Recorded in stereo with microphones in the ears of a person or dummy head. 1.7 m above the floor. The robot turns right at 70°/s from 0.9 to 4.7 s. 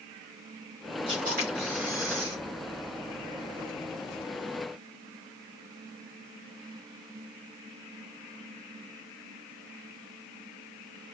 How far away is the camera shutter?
About 3 m.